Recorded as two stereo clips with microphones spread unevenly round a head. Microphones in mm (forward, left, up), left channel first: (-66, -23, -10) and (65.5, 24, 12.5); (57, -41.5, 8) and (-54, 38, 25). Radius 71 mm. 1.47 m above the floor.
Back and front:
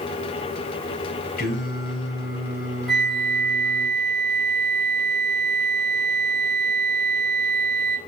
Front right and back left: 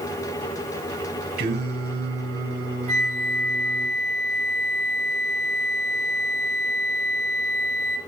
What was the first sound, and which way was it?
Singing, 170° left.